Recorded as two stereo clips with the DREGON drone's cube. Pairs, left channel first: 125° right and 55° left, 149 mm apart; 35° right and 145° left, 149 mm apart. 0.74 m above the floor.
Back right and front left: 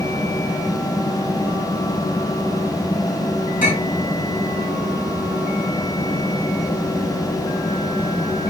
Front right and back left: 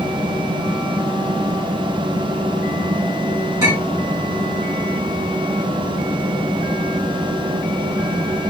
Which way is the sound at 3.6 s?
145° right.